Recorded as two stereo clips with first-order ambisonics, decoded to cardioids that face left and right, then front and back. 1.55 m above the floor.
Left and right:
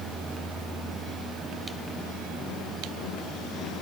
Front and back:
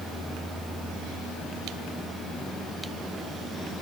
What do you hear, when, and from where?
Only background noise.